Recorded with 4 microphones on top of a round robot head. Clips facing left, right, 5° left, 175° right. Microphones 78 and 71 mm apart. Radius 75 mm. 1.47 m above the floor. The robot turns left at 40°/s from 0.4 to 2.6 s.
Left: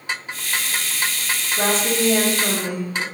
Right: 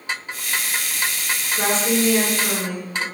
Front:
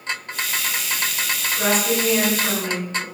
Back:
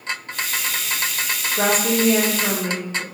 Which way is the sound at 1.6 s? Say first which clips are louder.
Even, back 2 dB; 155° left.